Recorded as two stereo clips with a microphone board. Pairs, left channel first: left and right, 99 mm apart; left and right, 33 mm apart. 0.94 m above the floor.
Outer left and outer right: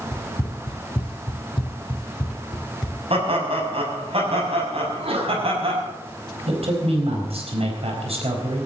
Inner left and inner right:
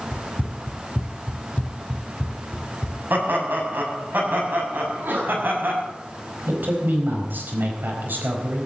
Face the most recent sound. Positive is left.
turn(degrees=-85)